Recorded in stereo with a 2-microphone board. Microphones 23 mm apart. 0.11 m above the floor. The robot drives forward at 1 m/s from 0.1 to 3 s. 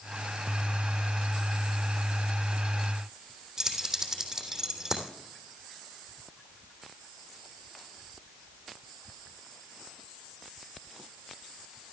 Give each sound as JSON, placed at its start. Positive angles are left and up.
{"t": 3.6, "sound": "keys jangling", "side_deg": -25, "distance_m": 3.0}